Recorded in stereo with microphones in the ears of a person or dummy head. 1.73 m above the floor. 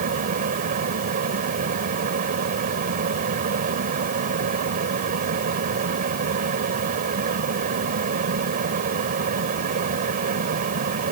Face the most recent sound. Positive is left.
turn(degrees=-45)  # may be behind; listen again after turning